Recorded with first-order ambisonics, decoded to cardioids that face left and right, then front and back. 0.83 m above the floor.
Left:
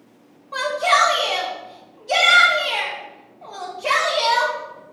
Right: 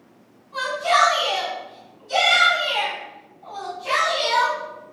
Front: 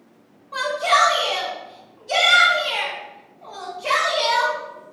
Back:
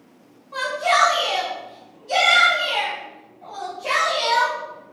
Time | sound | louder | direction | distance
0.5 | a shout | left 2 dB, front 1 dB | 80° left | 0.9 m